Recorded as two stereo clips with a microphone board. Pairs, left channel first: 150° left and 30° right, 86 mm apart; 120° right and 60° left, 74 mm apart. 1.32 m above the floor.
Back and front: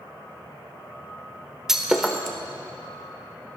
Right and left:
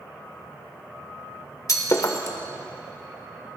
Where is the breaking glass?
115° right, 1.3 m.